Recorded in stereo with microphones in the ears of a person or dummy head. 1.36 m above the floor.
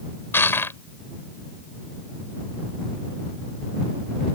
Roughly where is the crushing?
Centre.